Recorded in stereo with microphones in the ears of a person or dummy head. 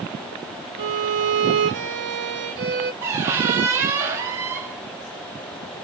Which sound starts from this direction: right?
A violin, at 0.8 s.